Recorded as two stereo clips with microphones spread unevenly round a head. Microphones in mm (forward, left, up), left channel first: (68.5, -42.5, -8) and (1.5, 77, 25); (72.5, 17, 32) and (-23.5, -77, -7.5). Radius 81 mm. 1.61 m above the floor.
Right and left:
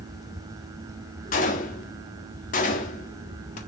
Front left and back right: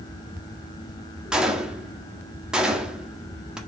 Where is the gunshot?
40° right, 1.6 m.